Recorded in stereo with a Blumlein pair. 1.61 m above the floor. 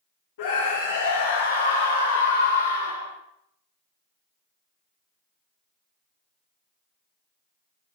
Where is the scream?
50° left, 3 m; by 3.1 s 80° left, 3.5 m.